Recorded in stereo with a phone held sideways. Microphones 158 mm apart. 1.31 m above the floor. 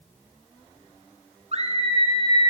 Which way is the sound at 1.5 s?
40° right (ahead or behind).